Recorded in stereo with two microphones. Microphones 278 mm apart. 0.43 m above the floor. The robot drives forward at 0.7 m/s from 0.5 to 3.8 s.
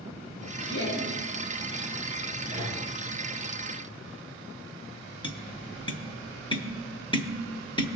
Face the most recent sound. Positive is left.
turn(degrees=15)  # may be behind; listen again after turning